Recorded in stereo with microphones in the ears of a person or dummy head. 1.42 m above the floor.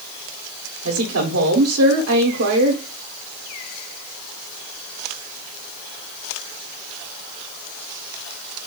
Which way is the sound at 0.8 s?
75° right (ahead or behind).